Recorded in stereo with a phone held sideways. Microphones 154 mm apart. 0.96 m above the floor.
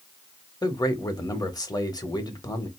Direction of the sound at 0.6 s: 25° left (ahead or behind).